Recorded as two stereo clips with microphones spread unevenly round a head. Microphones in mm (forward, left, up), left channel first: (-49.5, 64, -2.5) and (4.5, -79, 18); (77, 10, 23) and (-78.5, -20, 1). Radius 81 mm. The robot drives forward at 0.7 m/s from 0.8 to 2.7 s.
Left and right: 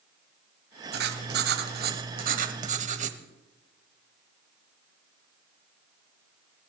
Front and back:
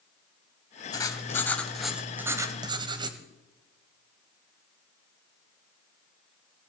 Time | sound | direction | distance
0.9 | writing | 50° right | 1.6 m